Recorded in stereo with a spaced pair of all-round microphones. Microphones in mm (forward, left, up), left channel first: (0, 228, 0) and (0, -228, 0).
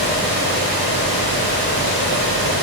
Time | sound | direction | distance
0.0 | a fan | 25° left (ahead or behind) | 5 m